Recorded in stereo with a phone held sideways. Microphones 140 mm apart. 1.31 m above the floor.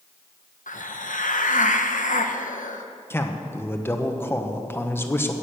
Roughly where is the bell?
I don't hear a bell.